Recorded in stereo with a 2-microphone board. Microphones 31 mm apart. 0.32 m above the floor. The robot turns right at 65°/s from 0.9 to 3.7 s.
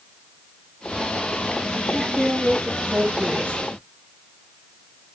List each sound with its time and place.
1.9 s a woman speaking: 165° left, 5.5 m; by 3.8 s 80° right, 5.5 m